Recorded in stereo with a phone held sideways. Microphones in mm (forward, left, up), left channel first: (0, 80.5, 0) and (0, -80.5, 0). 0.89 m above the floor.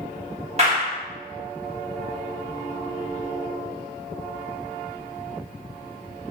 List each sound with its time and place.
0.6 s a clap: 40° right (ahead or behind), 1.2 m